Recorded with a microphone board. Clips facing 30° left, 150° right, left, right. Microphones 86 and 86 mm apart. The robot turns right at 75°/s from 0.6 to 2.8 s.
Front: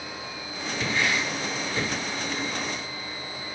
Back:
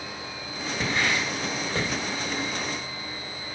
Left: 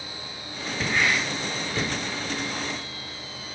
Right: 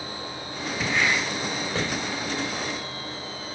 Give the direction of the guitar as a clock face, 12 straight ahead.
No guitar in this recording.